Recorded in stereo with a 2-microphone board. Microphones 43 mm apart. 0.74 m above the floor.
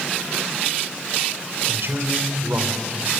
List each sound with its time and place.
1.7 s a man speaking: 65° right (ahead or behind), 3.5 m; by 3.1 s 50° right (ahead or behind), 3 m